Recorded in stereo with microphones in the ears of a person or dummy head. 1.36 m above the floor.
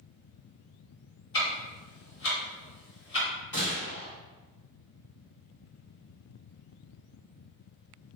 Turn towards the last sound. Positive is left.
turn(degrees=20)  # may be behind; listen again after turning